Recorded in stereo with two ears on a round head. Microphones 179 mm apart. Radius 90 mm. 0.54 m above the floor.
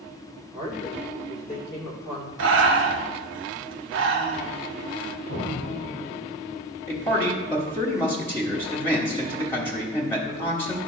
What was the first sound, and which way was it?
A woman speaking, 20° left (ahead or behind).